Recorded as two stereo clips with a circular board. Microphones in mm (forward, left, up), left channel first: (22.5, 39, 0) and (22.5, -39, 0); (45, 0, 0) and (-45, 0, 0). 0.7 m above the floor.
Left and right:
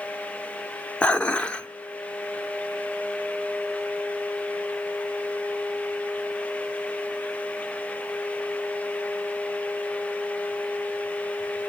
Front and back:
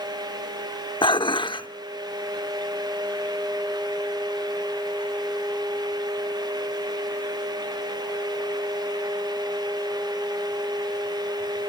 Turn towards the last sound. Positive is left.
turn(degrees=15)